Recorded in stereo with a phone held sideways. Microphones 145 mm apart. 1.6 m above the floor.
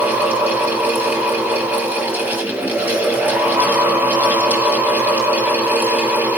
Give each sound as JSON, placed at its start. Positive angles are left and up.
{"t": 0.0, "sound": "a fan", "side_deg": -10, "distance_m": 3.0}